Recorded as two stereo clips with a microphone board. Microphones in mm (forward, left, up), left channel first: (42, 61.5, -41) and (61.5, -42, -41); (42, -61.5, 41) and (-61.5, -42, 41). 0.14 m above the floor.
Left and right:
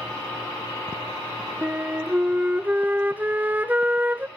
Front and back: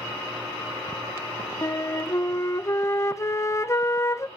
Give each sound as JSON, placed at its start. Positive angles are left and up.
{"t": 1.6, "sound": "a flute", "azimuth_deg": -30, "distance_m": 0.5}